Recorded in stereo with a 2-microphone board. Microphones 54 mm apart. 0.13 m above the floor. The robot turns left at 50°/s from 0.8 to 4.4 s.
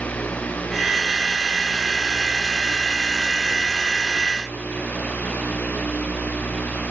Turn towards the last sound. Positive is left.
No sound to turn to.